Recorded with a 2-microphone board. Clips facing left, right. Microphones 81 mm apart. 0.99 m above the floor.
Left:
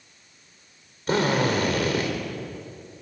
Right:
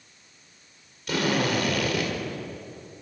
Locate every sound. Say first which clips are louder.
1.1 s a drill: left 3 dB; 35° left (ahead or behind), 4 m